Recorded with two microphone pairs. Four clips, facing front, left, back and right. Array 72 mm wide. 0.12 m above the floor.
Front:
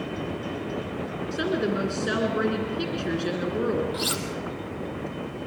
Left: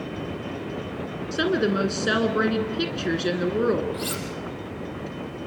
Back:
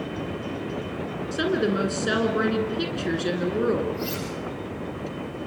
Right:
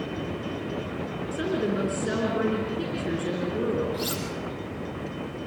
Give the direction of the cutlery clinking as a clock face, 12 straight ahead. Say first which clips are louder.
Even, even; 12 o'clock.